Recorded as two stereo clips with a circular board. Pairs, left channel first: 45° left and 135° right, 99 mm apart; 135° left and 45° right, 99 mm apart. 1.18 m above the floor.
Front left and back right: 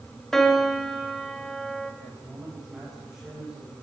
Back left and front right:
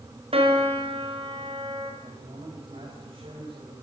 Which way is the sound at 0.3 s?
40° right.